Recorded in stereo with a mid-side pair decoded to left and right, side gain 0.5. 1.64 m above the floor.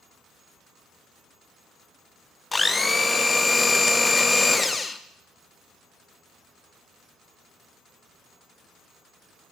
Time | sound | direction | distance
2.5 | a blender | 20° left | 0.6 m